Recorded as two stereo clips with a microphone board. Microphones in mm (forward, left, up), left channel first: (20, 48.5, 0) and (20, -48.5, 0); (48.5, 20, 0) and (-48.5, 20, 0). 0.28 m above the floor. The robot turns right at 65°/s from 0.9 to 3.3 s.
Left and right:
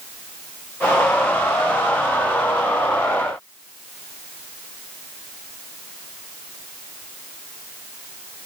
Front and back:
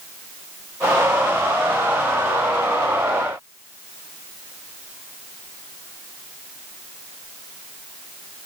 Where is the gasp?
I don't hear a gasp.